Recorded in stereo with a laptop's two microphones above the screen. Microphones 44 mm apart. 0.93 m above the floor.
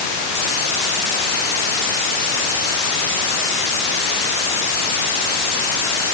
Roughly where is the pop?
No pop in this recording.